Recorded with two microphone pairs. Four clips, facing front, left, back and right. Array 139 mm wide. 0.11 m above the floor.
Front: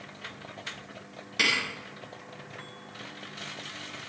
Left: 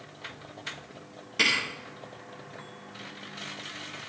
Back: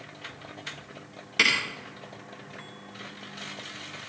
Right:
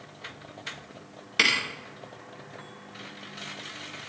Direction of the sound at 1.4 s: 105° right.